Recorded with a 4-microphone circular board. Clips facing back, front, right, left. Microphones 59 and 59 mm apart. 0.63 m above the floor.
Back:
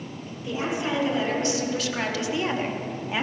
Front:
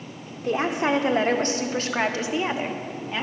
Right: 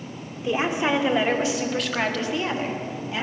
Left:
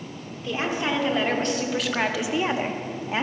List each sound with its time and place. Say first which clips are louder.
0.4 s a woman speaking: front 5 dB, right 3 dB; 20° right, 1.9 m; by 3.2 s 110° left, 1.1 m